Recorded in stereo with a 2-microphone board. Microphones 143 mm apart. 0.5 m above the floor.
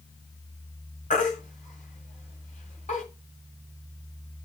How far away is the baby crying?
About 2 m.